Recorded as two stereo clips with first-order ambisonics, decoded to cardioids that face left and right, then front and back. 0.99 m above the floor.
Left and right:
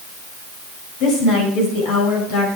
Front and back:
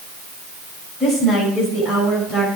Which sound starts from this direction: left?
A woman speaking, at 1.0 s.